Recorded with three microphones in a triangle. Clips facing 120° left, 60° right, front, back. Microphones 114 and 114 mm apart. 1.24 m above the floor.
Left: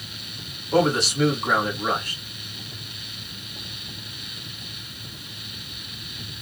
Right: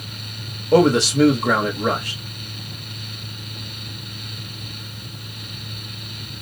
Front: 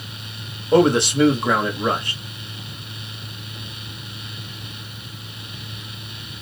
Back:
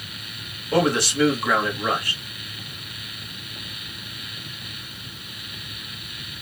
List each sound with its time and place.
0.7 s a man speaking: 70° right, 1.1 m